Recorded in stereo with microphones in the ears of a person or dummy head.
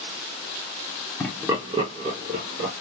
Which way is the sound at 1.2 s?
10° left (ahead or behind).